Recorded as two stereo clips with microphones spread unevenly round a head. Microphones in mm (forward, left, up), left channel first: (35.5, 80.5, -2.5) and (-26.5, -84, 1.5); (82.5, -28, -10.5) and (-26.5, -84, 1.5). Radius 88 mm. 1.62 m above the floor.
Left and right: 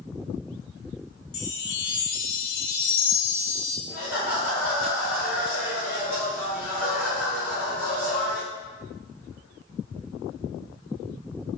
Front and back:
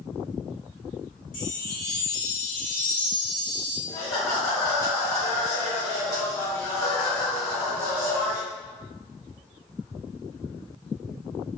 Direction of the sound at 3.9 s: 35° right.